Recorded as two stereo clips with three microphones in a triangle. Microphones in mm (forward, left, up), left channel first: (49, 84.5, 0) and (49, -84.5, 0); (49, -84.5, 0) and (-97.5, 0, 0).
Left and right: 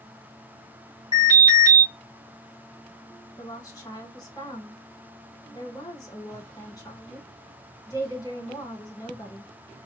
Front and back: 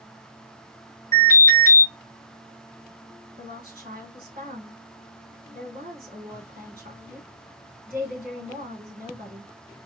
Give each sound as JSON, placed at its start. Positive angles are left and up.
{"t": 1.1, "sound": "an alarm", "azimuth_deg": 130, "distance_m": 3.5}
{"t": 3.4, "sound": "a woman speaking", "azimuth_deg": 155, "distance_m": 3.0}